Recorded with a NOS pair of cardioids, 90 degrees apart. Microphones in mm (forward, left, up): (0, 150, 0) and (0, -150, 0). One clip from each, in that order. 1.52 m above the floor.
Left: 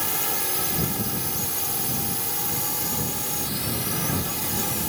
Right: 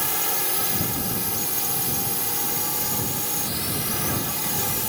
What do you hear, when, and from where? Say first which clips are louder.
0.0 s a drone: right 1 dB; 10° right